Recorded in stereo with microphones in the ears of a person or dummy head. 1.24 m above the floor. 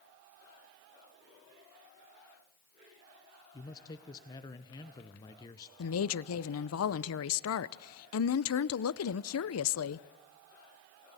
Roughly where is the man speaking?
Left.